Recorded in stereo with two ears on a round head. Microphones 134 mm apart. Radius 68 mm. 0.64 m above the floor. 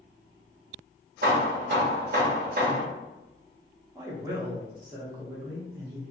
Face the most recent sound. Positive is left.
turn(degrees=-25)  # may be behind; listen again after turning